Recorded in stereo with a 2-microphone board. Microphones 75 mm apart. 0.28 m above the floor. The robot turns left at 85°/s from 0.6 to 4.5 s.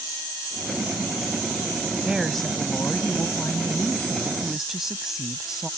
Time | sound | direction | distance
2.0 | a woman speaking | 160° right | ?